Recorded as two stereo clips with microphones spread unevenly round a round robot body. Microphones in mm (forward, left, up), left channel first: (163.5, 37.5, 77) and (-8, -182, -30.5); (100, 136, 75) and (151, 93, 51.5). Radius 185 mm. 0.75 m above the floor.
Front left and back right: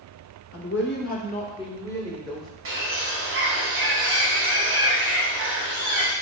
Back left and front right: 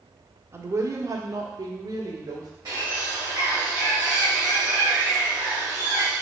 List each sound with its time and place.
0.5 s a woman speaking: 5° left, 1.6 m; by 2.5 s 40° right, 2.5 m
2.6 s a bird: 85° right, 2 m